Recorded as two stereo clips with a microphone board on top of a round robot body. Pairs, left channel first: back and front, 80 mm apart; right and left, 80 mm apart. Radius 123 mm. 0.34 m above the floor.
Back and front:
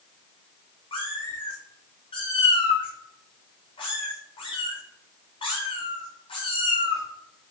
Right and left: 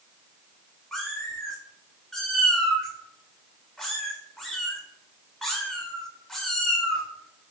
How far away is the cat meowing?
About 6.5 m.